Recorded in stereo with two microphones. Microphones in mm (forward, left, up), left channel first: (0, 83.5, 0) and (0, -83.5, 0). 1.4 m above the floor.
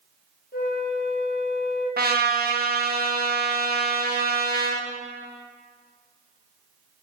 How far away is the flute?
About 1.5 m.